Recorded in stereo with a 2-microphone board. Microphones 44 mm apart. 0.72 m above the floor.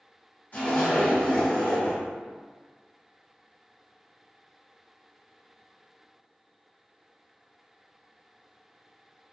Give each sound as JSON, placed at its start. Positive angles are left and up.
{"t": 0.5, "sound": "a zipper", "side_deg": 50, "distance_m": 1.7}